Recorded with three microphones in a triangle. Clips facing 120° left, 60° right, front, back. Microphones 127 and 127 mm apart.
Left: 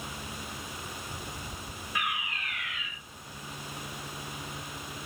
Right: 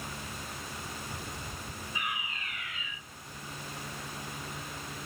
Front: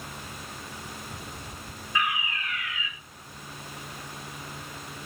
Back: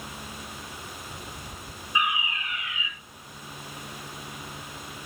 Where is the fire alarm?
110° left, 5 m.